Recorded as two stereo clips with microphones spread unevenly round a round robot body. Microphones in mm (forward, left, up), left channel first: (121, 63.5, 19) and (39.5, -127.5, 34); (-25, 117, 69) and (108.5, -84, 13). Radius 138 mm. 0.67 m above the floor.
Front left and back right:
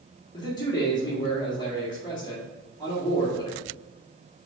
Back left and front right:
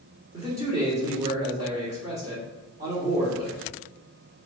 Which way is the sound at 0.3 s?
5° left.